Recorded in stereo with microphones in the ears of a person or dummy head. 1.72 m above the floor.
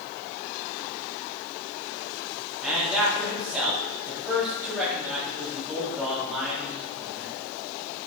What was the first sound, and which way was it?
A man speaking, centre (ahead or behind).